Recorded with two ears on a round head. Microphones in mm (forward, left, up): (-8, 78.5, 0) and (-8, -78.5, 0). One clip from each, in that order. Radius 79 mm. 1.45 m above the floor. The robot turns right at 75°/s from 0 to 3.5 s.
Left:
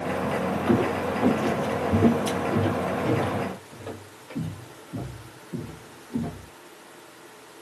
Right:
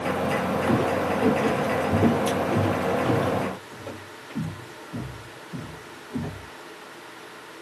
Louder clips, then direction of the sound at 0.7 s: Even; 15° right (ahead or behind).